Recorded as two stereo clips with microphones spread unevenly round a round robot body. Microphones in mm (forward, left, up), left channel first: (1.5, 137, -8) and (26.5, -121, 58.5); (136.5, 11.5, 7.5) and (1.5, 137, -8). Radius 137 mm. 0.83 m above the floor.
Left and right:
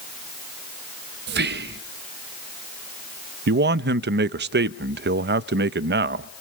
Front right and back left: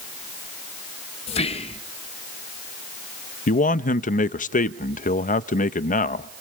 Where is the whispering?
55° right, 1.0 m.